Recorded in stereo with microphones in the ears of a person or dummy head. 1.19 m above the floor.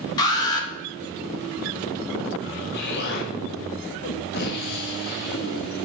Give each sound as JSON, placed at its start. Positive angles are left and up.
{"t": 0.2, "sound": "an alarm", "side_deg": 25, "distance_m": 3.0}
{"t": 2.7, "sound": "an explosion", "side_deg": 60, "distance_m": 1.5}